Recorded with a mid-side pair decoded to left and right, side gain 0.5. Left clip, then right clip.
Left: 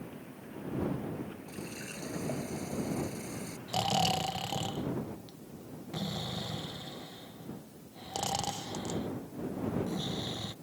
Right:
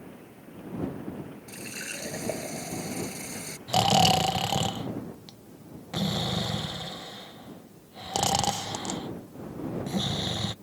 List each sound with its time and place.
1.5 s a running tap: 50° right
3.7 s snoring: 50° right